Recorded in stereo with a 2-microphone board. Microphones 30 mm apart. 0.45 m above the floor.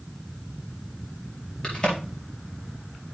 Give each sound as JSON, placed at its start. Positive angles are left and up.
{"t": 1.6, "sound": "a crack", "side_deg": 35, "distance_m": 4.5}